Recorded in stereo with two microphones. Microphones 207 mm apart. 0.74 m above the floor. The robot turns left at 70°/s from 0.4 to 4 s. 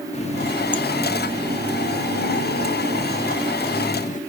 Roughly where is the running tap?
Ahead left.